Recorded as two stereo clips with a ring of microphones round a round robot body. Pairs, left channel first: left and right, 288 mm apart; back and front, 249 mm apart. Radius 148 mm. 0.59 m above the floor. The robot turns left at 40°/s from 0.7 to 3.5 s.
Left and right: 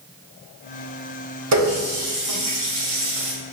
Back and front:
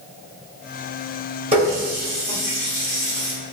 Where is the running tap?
65° right, 1.1 m; by 3.3 s 140° right, 1.1 m.